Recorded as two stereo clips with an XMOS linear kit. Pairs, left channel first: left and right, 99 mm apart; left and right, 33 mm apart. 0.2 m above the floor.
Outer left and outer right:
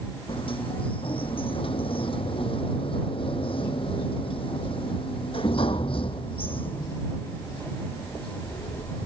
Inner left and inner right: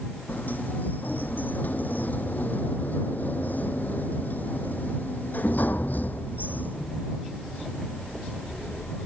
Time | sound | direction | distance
0.3 | a sliding door | 65° left (ahead or behind) | ?